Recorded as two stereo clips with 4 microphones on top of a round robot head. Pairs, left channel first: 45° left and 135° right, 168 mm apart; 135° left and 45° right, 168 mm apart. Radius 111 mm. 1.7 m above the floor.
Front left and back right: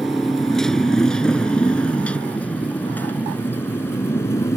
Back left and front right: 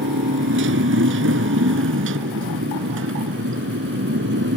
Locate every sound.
0.0 s a motorcycle: 45° right; by 4.6 s 30° right